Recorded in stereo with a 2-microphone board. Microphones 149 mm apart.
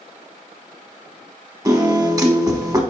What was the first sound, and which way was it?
A piano, 25° right (ahead or behind).